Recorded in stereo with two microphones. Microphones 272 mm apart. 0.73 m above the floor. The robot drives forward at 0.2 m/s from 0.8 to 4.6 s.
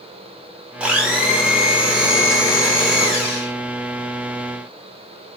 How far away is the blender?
About 0.8 m.